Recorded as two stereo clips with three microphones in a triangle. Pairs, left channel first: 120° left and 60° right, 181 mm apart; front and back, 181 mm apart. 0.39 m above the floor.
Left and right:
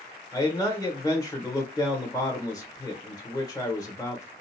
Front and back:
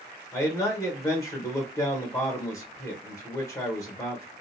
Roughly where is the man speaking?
Ahead left.